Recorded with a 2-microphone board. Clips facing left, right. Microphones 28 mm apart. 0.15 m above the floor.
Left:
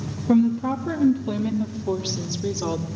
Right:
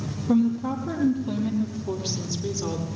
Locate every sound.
0.3 s a woman speaking: 50° left (ahead or behind), 3 m; by 2.9 s 45° left (ahead or behind), 4 m